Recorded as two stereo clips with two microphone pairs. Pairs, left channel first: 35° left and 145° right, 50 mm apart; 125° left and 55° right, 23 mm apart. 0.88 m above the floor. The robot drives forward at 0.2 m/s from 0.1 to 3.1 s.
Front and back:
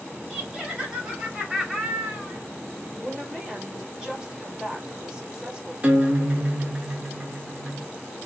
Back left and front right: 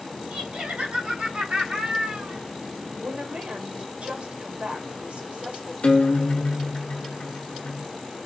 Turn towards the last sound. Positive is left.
turn(degrees=150)